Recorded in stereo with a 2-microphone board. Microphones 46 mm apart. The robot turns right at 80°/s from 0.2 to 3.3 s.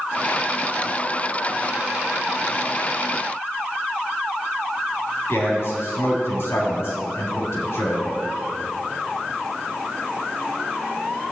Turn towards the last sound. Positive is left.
turn(degrees=70)  # may be behind; listen again after turning